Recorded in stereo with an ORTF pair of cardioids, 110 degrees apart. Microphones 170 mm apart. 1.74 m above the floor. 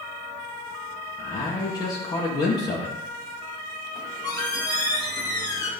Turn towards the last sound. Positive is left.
turn(degrees=25)